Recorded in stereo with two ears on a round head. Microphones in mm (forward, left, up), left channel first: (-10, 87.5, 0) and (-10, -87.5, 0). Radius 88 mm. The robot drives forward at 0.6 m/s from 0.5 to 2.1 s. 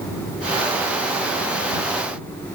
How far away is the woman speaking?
No woman speaking in this recording.